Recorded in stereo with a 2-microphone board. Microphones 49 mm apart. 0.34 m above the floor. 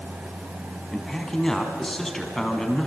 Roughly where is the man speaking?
Centre.